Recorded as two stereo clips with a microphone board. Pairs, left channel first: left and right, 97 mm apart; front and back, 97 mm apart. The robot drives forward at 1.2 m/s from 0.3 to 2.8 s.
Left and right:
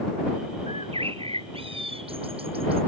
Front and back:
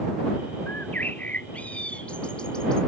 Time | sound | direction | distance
0.7 | a bird | 70° right | ?